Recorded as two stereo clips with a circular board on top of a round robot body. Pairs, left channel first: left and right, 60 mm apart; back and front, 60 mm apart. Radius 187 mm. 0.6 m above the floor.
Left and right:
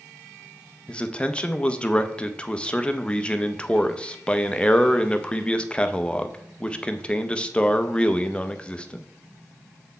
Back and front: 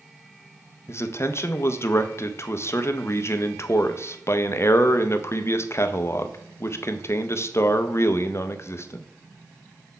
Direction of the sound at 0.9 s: 160° left.